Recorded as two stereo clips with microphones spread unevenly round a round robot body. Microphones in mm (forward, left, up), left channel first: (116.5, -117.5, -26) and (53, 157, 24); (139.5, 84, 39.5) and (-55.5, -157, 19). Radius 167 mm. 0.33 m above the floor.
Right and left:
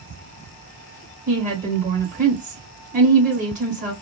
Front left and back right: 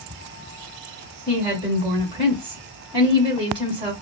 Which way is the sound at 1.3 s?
170° left.